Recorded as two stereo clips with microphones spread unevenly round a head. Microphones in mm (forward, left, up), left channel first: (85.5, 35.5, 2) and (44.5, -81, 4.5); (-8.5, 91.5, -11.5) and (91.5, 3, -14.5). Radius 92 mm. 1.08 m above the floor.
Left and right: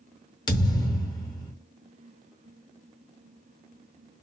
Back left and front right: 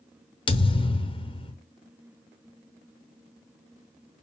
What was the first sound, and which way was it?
A thud, 120° left.